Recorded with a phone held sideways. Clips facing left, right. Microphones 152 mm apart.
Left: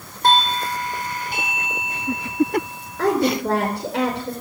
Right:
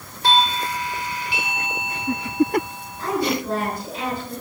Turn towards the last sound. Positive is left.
turn(degrees=75)  # may be behind; listen again after turning